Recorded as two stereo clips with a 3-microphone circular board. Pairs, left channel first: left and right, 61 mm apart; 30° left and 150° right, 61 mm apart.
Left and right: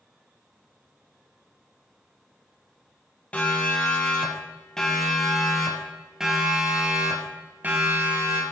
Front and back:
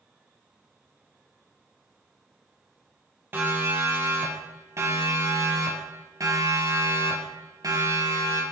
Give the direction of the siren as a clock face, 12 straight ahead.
7 o'clock.